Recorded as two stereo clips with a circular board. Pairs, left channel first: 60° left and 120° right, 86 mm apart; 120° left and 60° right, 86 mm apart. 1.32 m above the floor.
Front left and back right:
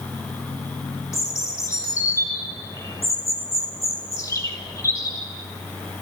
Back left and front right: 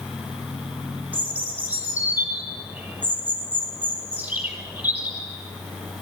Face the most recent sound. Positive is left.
turn(degrees=10)